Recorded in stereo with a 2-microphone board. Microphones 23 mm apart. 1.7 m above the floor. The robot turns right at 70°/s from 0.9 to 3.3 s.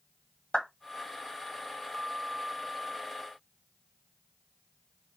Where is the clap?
50° left (ahead or behind), 1.6 m.